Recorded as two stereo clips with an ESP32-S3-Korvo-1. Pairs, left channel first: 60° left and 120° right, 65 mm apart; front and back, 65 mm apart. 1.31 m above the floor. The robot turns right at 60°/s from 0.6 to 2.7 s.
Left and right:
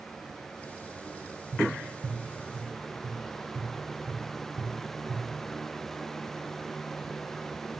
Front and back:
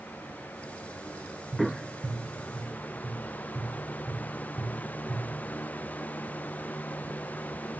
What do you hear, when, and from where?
1.5 s tapping: 150° right, 1.2 m; by 5.2 s 80° right, 1.2 m